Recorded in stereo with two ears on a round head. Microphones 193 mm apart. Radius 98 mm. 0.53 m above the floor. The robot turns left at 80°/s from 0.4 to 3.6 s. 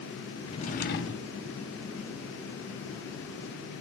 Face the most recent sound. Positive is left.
turn(degrees=-90)